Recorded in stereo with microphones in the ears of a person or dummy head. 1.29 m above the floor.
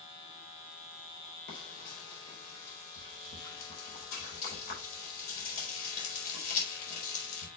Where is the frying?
55° left (ahead or behind), 4 m.